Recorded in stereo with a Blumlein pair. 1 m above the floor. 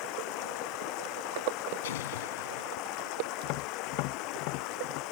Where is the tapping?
45° left.